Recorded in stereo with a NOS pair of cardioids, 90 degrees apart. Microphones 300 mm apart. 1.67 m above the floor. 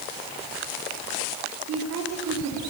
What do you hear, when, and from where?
1.7 s a woman speaking: 65° right, 4 m